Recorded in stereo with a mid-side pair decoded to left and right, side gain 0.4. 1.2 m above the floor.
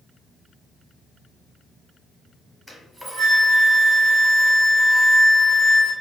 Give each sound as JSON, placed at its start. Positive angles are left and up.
{"t": 2.7, "sound": "a flute", "azimuth_deg": -5, "distance_m": 1.0}